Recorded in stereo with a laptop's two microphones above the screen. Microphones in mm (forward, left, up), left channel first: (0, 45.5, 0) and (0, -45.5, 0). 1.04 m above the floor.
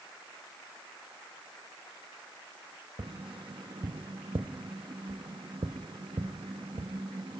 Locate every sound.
3.0 s tapping: 65° right (ahead or behind), 0.6 m